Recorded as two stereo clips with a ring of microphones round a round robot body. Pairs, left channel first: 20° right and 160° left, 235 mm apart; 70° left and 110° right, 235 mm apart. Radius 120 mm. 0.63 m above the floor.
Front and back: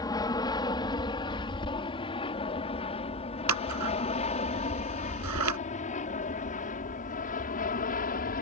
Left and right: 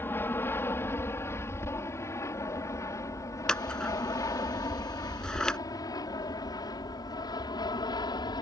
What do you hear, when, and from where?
0.0 s an aircraft: 5° left
3.5 s scissors: 155° left